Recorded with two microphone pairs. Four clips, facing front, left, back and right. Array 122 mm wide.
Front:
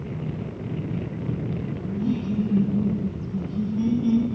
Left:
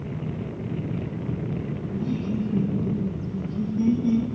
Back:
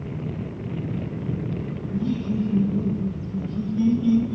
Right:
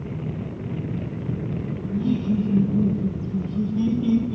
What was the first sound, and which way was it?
Laughter, 100° right.